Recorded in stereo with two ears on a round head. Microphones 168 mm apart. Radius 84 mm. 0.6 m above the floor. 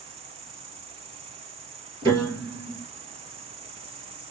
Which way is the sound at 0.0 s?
35° right (ahead or behind).